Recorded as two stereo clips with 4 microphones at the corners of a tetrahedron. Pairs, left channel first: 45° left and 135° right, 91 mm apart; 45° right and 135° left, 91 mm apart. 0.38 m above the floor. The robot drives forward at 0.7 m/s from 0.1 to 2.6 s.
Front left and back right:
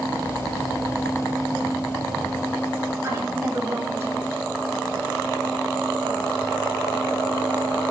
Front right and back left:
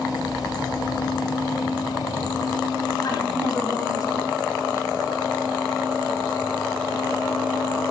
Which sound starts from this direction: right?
A woman speaking, at 3.0 s.